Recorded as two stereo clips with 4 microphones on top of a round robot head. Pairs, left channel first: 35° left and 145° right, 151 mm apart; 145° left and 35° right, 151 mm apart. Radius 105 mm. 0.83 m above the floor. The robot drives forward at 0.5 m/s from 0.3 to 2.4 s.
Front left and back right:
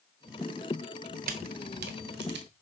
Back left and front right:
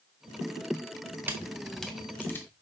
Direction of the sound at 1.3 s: 110° right.